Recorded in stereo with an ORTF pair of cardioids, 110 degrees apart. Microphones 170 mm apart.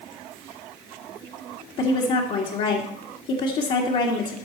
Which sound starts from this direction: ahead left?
A woman speaking, at 1.8 s.